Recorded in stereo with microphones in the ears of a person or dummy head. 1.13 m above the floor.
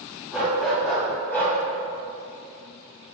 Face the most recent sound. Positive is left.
turn(degrees=15)  # may be behind; listen again after turning